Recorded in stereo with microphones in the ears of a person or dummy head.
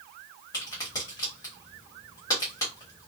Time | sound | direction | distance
0.5 | a crack | 15° left (ahead or behind) | 1.2 m